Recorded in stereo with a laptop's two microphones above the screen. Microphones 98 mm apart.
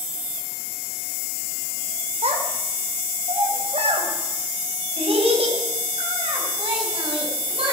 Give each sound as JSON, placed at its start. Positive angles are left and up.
{"t": 2.2, "sound": "a child speaking", "side_deg": -80, "distance_m": 2.5}